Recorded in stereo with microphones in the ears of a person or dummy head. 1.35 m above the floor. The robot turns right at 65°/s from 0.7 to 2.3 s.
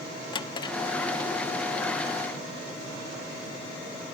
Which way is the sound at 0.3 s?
30° left (ahead or behind).